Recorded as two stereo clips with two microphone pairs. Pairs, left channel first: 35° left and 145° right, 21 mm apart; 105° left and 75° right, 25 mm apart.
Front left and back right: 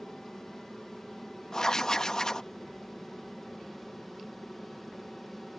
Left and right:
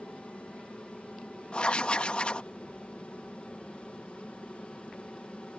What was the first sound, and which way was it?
An aircraft, 105° left.